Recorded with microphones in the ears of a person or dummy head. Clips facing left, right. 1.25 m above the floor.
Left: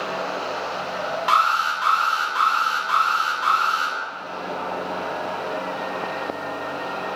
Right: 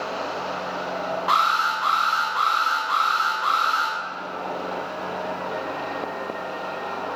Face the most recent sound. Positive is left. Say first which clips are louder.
# left 1 dB
turn(degrees=35)  # may be behind; listen again after turning